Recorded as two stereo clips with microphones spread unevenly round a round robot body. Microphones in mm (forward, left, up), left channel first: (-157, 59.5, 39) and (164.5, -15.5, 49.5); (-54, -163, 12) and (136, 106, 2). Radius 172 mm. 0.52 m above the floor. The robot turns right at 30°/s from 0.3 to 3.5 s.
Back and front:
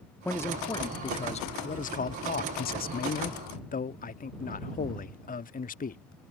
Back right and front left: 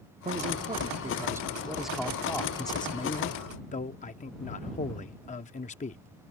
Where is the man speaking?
95° left; by 6.0 s 170° right.